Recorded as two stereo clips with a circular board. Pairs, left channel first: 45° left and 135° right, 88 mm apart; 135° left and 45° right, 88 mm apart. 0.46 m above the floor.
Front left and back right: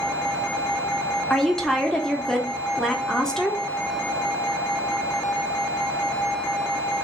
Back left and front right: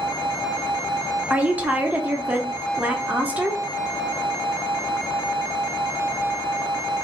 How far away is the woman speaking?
About 0.7 m.